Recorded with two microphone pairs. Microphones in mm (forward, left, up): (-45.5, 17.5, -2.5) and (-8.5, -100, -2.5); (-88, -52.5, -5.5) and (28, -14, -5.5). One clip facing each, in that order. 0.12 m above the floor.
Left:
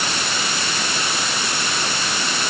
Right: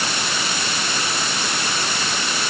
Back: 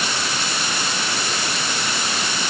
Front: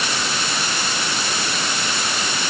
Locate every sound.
Only background noise.